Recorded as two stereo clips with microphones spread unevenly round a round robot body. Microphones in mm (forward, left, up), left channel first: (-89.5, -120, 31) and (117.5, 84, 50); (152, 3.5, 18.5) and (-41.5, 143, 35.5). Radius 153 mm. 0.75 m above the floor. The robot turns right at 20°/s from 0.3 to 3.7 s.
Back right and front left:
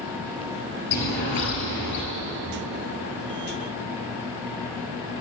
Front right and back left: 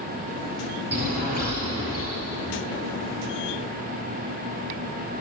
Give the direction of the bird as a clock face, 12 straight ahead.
5 o'clock.